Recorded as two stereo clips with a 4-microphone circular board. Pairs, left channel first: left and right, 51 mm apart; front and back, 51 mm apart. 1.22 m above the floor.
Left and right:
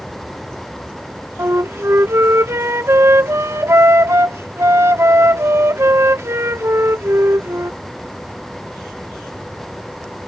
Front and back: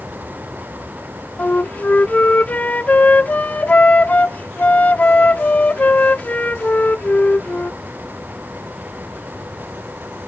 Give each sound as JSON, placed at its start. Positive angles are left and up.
{"t": 1.4, "sound": "a flute", "azimuth_deg": -60}